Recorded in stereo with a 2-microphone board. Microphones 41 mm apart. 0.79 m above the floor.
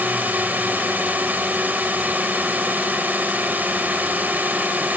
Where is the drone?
50° right (ahead or behind).